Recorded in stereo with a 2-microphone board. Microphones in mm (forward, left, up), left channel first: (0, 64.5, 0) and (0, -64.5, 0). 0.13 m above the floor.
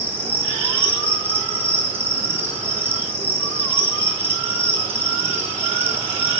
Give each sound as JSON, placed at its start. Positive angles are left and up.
{"t": 0.0, "sound": "an insect", "side_deg": -15, "distance_m": 1.6}